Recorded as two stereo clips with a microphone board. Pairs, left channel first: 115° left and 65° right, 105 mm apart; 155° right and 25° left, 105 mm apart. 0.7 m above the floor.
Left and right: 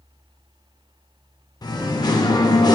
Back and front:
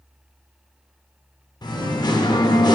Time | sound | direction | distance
1.6 | singing | 160° left | 0.5 m